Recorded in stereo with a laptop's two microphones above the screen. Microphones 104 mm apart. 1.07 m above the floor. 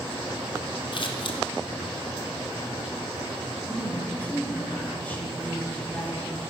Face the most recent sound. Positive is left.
turn(degrees=15)  # may be behind; listen again after turning